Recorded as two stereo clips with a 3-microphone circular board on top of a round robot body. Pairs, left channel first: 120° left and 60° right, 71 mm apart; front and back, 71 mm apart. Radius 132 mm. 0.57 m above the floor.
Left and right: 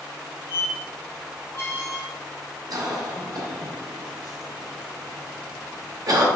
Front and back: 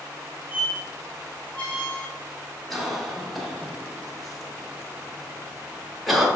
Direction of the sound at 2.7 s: 90° right.